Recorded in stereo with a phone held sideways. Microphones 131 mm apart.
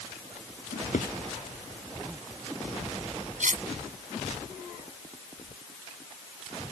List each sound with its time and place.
0.7 s a drawer: 80° left
3.4 s cutlery clinking: 70° right (ahead or behind)